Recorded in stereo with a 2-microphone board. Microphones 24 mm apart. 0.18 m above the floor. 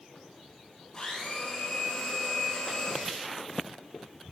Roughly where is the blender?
Left.